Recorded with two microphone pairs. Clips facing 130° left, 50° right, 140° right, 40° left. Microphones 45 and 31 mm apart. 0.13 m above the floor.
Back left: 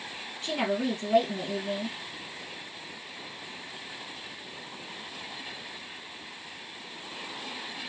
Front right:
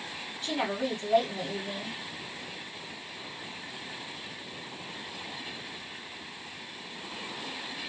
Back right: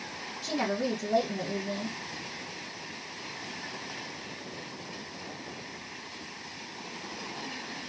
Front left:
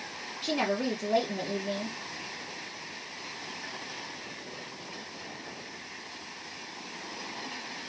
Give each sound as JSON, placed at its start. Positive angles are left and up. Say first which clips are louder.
{"t": 0.4, "sound": "a woman speaking", "louder": "back left 2 dB, front left 1 dB", "azimuth_deg": 70, "distance_m": 2.5}